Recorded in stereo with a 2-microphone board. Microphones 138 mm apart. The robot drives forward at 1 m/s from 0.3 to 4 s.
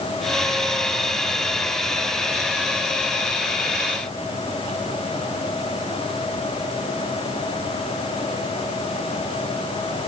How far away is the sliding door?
No sliding door in this recording.